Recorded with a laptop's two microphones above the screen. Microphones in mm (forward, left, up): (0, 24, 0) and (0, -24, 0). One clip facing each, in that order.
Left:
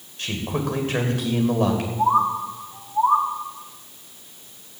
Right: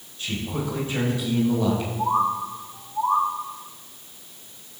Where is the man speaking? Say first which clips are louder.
Left 2 dB; 70° left (ahead or behind), 3 m.